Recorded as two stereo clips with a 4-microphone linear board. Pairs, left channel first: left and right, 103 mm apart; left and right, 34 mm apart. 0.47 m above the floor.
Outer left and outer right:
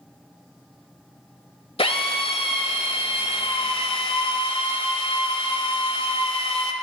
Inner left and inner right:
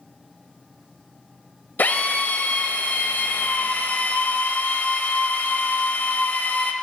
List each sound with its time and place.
1.8 s a drill: 65° left (ahead or behind), 1.2 m